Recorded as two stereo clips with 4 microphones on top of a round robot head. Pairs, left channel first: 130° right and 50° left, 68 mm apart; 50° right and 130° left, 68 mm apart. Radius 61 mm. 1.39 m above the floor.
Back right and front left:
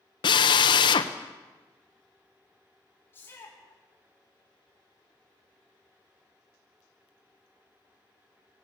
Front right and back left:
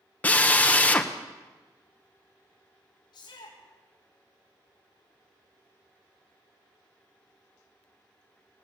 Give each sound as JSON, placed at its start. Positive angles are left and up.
{"t": 0.2, "sound": "a drill", "azimuth_deg": -120, "distance_m": 1.1}
{"t": 3.1, "sound": "a shout", "azimuth_deg": -70, "distance_m": 4.0}